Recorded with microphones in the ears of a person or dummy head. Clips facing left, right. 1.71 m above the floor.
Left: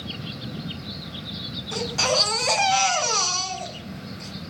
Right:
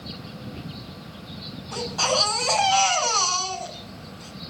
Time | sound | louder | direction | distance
1.7 | a baby crying | left 1 dB | 35° left (ahead or behind) | 5 m